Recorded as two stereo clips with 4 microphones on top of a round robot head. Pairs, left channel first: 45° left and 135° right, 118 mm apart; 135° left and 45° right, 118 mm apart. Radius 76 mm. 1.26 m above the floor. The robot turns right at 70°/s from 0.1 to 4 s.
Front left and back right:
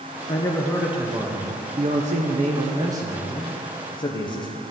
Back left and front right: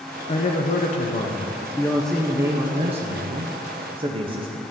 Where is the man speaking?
95° left, 0.8 m; by 4.7 s 5° right, 0.8 m.